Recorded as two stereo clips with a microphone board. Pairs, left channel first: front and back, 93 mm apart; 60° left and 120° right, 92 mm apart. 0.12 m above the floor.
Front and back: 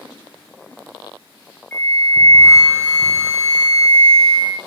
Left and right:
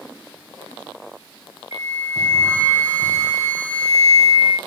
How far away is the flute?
About 3 m.